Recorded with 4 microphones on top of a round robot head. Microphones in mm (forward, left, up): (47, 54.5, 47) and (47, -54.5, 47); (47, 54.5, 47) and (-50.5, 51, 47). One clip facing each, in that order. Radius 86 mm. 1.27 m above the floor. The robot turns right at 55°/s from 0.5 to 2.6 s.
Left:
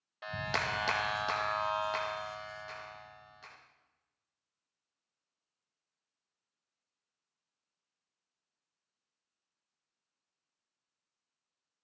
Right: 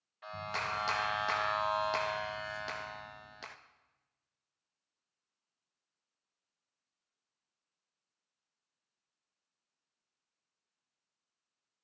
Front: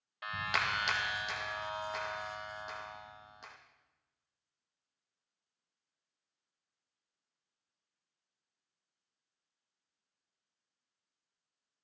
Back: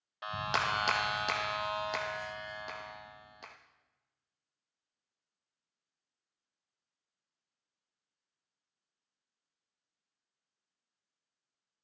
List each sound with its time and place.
0.2 s a clap: 125° left, 0.7 m; by 3.6 s 120° right, 0.7 m